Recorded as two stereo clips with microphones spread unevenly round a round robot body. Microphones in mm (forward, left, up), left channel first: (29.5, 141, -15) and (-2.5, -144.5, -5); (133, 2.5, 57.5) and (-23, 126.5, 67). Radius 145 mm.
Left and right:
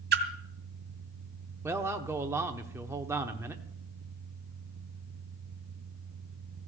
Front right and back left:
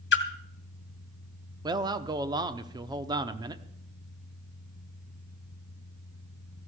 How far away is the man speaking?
About 0.9 m.